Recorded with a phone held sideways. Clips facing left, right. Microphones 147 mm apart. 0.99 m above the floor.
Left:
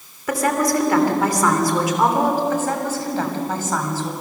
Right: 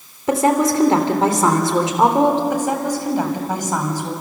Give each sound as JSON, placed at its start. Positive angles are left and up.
{"t": 0.3, "sound": "a woman speaking", "side_deg": -25, "distance_m": 3.0}
{"t": 2.5, "sound": "a woman speaking", "side_deg": -15, "distance_m": 5.0}